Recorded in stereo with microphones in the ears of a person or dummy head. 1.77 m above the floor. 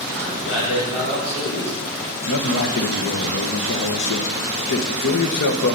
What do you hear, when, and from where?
0.1 s a man speaking: 35° left (ahead or behind), 6 m
2.3 s a man speaking: 55° left (ahead or behind), 1.3 m